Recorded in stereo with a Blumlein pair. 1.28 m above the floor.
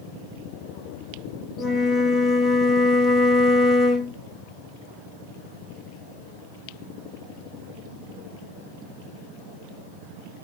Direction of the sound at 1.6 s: 25° left.